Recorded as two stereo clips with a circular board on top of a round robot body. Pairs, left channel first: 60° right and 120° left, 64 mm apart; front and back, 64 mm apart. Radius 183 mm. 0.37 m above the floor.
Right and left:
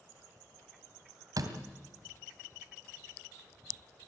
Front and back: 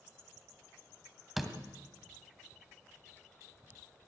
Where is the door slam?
95° left, 2 m.